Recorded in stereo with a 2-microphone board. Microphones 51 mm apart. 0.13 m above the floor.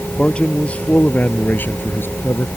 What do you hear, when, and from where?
0.2 s a man speaking: 20° left (ahead or behind); by 2.5 s 50° left (ahead or behind)